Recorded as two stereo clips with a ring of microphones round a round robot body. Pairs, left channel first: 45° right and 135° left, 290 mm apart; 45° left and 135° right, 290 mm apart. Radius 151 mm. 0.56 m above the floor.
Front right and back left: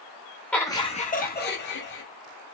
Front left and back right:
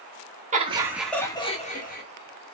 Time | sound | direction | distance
0.5 | laughter | 125° right | 1.0 m